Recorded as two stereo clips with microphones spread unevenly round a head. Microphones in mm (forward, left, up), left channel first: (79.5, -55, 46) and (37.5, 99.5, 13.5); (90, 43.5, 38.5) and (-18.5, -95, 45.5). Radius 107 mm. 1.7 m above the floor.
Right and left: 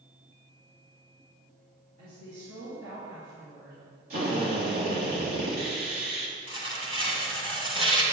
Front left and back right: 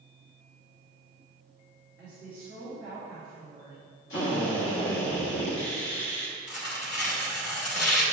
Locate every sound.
2.0 s a woman speaking: 155° left, 2.5 m
4.1 s a drill: 80° left, 1.7 m
6.5 s tearing paper: 50° left, 2 m